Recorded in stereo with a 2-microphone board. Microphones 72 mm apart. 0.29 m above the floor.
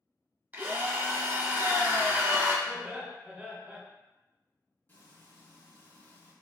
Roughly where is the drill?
Right.